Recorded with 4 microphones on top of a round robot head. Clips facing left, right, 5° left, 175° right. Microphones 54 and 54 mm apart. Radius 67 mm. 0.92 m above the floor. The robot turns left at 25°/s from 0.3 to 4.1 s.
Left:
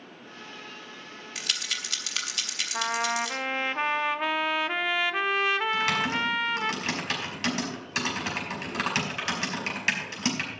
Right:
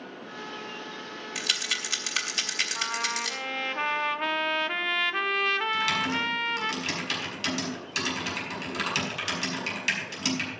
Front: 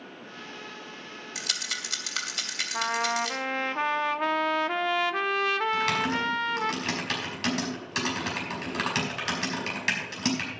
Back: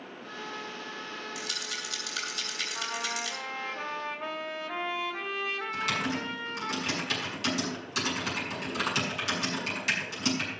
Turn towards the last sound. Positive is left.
turn(degrees=35)